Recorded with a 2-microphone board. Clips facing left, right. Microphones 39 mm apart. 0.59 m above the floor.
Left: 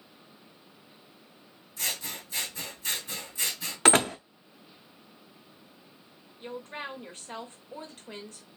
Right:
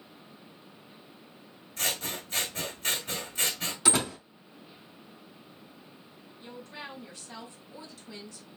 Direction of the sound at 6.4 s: 45° left (ahead or behind).